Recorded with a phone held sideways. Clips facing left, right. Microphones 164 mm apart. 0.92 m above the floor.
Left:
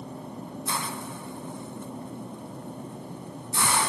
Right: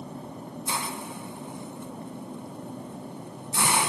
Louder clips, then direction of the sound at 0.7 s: Right 1 dB; 15° right (ahead or behind).